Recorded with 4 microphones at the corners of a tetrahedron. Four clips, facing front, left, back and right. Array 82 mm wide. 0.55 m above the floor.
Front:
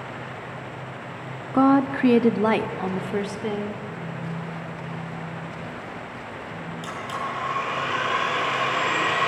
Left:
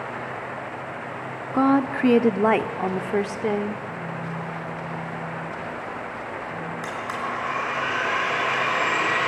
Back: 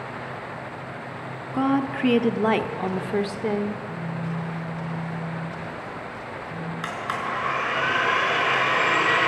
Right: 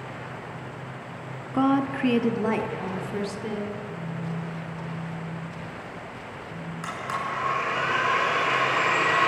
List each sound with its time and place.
1.5 s a woman speaking: 35° left, 0.8 m; by 3.8 s 110° left, 1.3 m
3.9 s a phone buzzing: 175° left, 8.5 m
6.8 s a blender: 175° left, 7 m